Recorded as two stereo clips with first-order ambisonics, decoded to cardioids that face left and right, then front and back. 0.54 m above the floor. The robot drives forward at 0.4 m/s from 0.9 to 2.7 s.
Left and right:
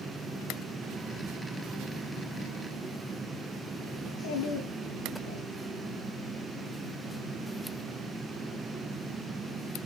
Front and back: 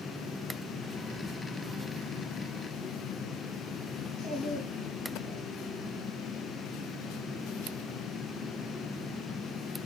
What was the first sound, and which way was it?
A child speaking, 90° left.